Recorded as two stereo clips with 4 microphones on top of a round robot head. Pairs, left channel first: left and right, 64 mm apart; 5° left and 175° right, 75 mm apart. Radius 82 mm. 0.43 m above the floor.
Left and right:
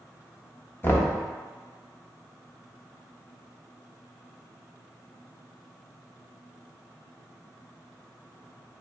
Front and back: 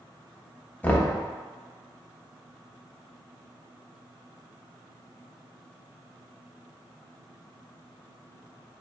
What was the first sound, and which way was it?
Knocking, 60° left.